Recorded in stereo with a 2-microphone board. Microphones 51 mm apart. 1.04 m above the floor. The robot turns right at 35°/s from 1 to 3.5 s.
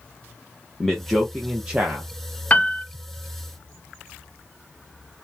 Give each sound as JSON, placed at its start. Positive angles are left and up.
{"t": 0.8, "sound": "a man speaking", "azimuth_deg": 175, "distance_m": 0.7}
{"t": 2.5, "sound": "a piano", "side_deg": 30, "distance_m": 0.6}